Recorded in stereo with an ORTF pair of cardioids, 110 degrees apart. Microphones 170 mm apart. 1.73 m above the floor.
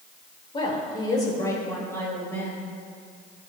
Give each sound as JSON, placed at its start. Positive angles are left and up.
{"t": 0.5, "sound": "a woman speaking", "azimuth_deg": 30, "distance_m": 2.5}